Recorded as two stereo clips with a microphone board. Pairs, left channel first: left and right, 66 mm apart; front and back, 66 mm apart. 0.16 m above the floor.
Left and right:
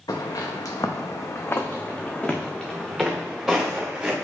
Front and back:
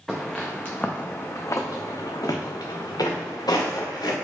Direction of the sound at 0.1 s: 90° left.